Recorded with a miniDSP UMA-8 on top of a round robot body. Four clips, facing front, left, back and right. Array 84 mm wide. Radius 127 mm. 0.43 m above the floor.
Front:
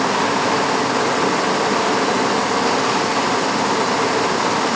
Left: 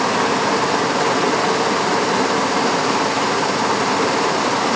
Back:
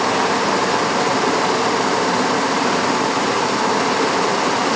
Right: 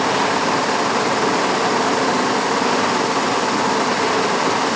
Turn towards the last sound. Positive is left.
No sound to turn to.